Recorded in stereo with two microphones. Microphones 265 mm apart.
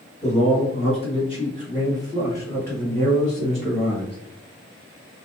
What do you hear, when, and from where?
0.2 s a man speaking: 25° left (ahead or behind), 1.9 m; by 4.2 s 5° right (ahead or behind), 1.9 m